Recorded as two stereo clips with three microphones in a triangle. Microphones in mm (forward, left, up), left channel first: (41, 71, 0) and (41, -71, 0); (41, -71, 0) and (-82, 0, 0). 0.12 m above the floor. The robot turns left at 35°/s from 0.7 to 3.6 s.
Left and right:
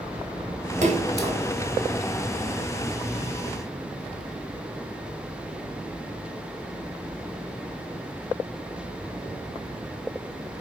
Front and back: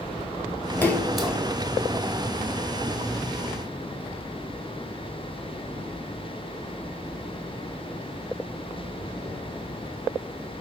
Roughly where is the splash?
Right.